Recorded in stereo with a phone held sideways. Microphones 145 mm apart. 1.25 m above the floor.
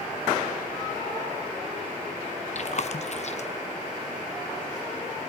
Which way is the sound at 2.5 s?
50° left (ahead or behind).